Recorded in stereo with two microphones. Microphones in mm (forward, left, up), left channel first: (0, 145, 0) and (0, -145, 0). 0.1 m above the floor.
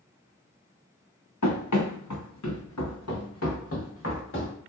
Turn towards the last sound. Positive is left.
turn(degrees=40)  # may be behind; listen again after turning